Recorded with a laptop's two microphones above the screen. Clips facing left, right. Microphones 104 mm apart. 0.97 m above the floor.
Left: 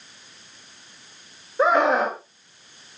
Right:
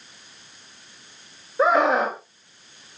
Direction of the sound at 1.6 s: Centre (ahead or behind).